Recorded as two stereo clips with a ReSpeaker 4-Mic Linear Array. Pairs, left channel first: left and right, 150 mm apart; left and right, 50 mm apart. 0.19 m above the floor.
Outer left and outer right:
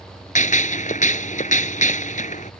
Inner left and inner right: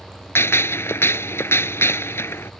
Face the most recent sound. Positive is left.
turn(degrees=55)  # may be behind; listen again after turning